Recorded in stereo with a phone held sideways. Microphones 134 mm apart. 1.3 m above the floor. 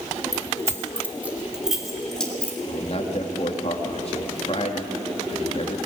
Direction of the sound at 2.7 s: 50° left (ahead or behind).